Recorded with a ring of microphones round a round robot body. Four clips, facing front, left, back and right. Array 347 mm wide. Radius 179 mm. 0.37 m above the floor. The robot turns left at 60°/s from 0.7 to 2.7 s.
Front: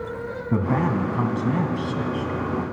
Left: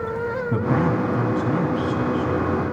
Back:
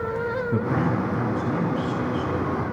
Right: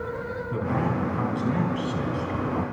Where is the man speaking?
30° left, 4 m; by 2.6 s 85° right, 4 m.